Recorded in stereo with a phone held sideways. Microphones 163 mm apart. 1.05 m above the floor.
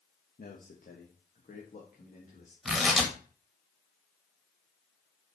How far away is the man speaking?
About 1.3 m.